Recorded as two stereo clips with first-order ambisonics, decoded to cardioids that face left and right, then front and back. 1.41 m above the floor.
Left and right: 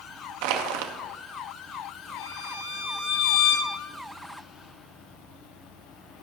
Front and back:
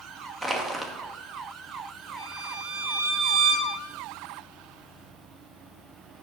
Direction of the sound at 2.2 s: 125° left.